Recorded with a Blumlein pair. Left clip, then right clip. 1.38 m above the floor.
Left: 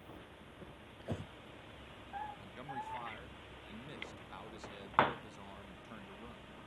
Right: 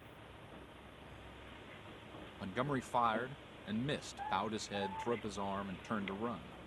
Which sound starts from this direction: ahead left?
Breathing, at 1.0 s.